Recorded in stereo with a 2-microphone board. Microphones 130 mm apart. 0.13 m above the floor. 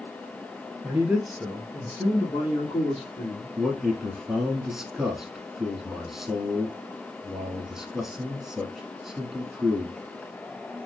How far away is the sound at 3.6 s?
About 1.2 m.